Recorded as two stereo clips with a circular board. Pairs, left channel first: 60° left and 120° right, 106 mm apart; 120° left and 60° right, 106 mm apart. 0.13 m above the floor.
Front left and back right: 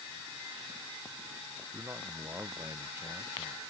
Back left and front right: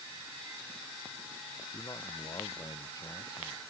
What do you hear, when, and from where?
1.7 s a man speaking: 175° left